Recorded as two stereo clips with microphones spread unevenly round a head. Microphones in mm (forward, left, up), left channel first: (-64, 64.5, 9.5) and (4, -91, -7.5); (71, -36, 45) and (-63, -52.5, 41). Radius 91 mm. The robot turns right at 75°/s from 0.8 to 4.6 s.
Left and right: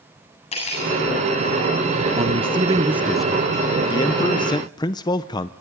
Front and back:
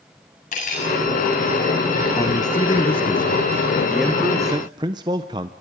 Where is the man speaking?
45° right, 0.6 m; by 5.5 s 140° left, 0.6 m.